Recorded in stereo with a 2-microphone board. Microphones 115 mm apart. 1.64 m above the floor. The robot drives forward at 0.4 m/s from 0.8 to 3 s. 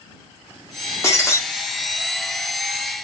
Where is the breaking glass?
25° left (ahead or behind), 1.3 m.